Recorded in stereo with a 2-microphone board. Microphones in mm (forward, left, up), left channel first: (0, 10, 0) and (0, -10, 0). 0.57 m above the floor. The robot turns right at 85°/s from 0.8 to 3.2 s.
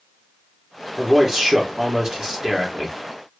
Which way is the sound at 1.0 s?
160° right.